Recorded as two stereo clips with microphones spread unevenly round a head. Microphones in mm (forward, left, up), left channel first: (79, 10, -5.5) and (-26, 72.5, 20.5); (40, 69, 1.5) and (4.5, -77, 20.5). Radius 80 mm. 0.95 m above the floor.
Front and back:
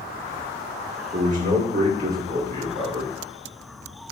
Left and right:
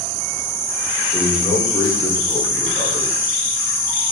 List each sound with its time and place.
1.1 s a man speaking: 130° left, 3 m